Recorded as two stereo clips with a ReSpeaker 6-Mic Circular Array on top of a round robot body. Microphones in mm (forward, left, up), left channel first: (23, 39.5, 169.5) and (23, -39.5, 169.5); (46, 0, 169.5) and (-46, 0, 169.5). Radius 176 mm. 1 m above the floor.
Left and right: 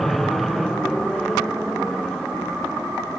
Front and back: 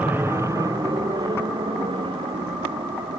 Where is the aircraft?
175° left; by 3.2 s straight behind.